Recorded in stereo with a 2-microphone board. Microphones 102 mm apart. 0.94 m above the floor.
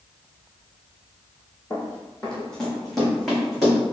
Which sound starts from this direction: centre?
Running footsteps, at 1.7 s.